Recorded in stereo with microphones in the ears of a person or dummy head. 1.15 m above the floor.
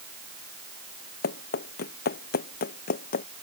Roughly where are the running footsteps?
Left.